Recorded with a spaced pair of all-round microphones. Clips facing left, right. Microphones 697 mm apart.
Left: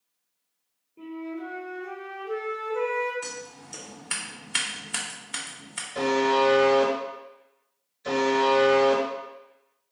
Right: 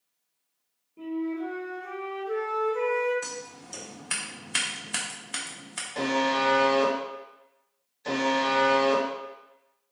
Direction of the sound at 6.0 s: 35° left (ahead or behind).